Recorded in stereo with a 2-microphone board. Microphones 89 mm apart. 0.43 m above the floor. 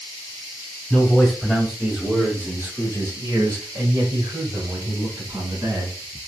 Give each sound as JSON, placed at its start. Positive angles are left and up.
{"t": 0.9, "sound": "a man speaking", "side_deg": 15, "distance_m": 1.9}